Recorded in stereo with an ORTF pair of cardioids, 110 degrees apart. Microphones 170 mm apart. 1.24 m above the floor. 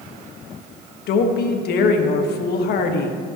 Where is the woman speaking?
65° left, 1.4 m.